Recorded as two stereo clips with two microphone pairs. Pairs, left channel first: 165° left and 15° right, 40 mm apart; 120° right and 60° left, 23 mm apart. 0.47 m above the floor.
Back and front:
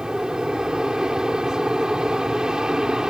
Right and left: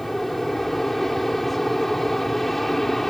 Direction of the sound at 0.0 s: 45° right.